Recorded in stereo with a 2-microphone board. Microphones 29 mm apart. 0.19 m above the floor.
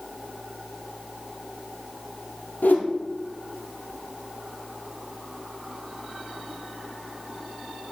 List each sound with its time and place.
2.6 s a whoosh: 80° left, 2.5 m